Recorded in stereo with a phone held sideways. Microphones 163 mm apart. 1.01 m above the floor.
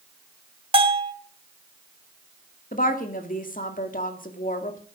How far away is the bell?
About 1.5 m.